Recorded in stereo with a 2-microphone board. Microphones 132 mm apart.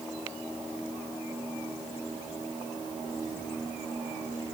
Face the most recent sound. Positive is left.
No sound to turn to.